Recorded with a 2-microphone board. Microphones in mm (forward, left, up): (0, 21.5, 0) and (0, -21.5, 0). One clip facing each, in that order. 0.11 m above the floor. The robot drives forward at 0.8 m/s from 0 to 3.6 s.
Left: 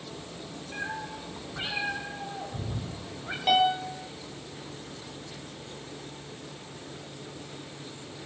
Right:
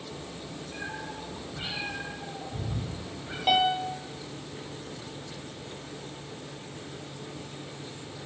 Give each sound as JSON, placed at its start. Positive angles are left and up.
{"t": 0.7, "sound": "a cat meowing", "side_deg": 25, "distance_m": 6.5}
{"t": 3.5, "sound": "a piano", "side_deg": -5, "distance_m": 1.3}